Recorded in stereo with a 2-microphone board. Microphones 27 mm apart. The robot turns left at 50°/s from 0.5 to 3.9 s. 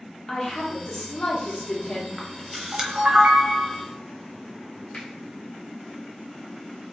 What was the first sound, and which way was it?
A woman speaking, 150° left.